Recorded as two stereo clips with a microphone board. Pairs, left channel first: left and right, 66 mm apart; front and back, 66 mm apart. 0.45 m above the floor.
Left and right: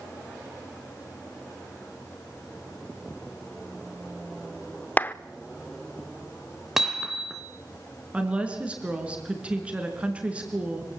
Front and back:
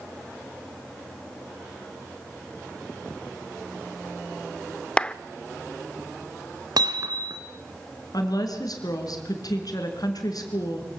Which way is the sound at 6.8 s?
175° right.